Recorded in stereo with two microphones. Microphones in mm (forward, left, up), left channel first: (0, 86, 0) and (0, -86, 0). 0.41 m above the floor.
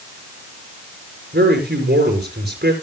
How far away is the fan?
I don't hear a fan.